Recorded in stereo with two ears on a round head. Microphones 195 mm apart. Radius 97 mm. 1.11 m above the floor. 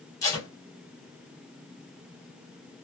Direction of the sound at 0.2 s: 15° left (ahead or behind).